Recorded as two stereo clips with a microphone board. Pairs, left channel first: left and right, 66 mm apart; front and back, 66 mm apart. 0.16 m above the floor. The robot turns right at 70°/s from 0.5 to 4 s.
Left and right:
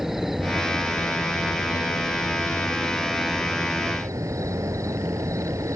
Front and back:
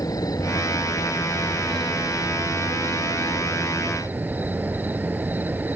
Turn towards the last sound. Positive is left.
turn(degrees=-120)